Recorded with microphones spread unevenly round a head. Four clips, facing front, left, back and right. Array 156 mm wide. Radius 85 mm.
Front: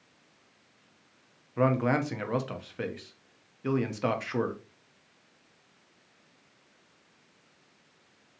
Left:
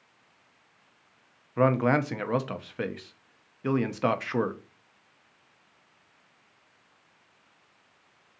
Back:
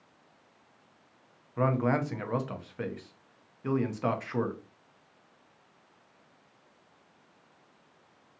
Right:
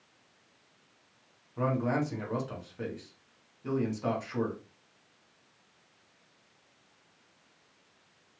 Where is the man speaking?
65° left, 0.6 m.